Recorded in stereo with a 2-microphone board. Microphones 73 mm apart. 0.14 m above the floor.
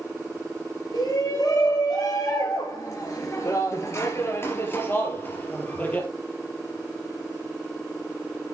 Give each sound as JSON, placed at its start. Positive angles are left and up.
{"t": 0.9, "sound": "a shout", "side_deg": 60, "distance_m": 3.0}